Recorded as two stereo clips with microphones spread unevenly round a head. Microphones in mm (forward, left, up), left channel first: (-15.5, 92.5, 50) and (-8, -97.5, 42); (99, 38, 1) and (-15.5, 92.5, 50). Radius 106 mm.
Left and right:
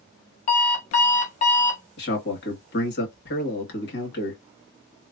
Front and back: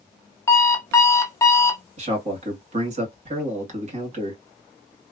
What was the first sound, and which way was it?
An alarm clock, 60° left.